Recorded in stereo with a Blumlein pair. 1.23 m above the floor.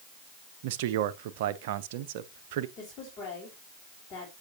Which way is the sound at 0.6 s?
50° right.